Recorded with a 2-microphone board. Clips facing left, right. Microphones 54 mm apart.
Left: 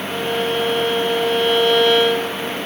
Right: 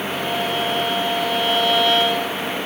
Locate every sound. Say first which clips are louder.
0.1 s a violin: left 4 dB; centre (ahead or behind), 9.5 m